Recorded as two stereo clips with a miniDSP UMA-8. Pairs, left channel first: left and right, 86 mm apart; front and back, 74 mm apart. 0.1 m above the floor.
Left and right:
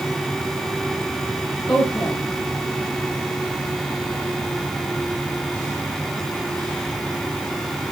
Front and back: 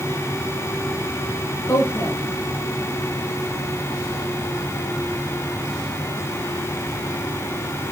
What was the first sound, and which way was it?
A woman speaking, 55° left.